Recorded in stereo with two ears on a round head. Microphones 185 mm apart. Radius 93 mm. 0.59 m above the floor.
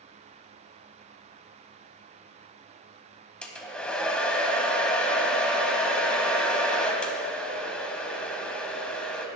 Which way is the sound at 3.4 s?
5° left (ahead or behind).